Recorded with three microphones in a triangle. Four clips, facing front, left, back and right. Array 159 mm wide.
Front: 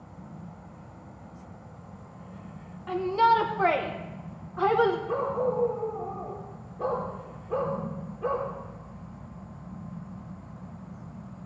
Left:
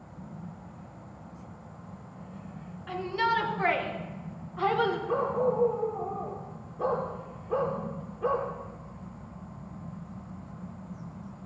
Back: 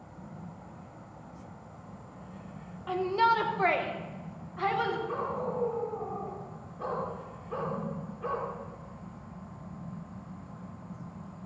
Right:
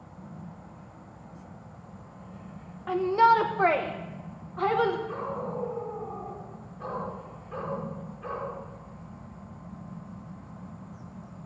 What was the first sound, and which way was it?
A shout, 100° right.